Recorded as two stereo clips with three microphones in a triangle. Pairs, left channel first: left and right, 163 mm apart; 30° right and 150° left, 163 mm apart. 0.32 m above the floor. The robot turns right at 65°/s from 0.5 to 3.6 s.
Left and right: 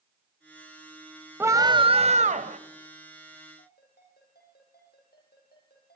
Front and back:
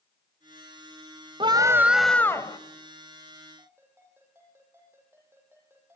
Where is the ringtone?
75° left, 9.5 m.